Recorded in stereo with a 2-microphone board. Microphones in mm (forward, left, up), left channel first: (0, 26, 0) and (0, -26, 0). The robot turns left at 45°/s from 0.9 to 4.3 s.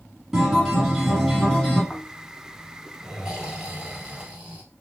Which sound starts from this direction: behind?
A guitar, at 0.3 s.